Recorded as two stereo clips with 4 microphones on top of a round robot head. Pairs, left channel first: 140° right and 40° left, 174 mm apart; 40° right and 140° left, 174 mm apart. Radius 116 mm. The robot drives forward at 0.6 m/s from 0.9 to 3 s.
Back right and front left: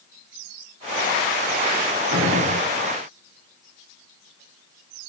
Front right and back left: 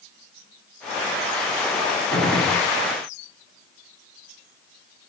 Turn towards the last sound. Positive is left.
turn(degrees=60)